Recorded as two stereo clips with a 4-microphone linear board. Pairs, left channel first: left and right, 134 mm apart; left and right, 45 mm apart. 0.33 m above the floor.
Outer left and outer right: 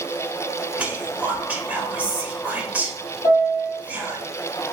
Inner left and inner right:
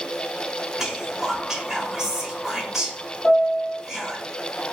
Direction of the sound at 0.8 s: 15° right (ahead or behind).